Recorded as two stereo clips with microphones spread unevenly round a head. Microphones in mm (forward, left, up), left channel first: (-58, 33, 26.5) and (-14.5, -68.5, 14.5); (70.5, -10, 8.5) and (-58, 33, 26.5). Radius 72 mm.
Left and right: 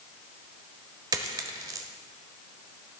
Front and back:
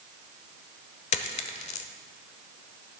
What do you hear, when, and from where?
1.1 s a dropped coin: 15° right, 1.0 m